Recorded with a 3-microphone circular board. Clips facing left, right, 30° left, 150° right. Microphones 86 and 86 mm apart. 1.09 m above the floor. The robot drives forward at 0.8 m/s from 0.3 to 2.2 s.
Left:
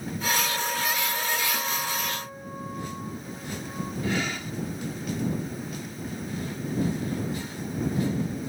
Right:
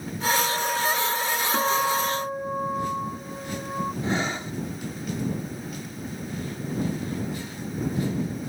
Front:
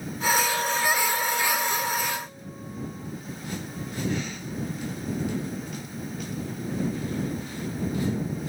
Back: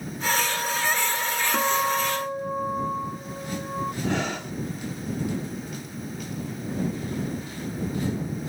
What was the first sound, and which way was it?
A guitar, 130° right.